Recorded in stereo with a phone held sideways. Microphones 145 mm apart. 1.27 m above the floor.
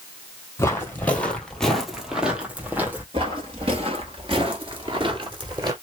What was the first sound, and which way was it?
Footsteps, 15° left (ahead or behind).